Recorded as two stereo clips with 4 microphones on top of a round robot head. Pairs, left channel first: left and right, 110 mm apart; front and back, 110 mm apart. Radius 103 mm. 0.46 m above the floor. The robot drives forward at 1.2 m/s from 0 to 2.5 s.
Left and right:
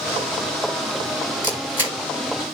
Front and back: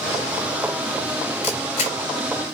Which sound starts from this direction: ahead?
A camera shutter, at 1.4 s.